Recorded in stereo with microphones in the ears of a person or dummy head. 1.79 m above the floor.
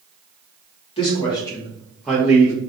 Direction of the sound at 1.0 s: 35° left (ahead or behind).